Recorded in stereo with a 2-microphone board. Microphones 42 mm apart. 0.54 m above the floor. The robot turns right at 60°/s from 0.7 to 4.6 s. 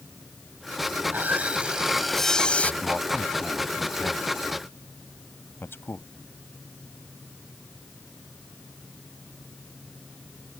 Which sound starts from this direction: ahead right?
Sawing, at 1.0 s.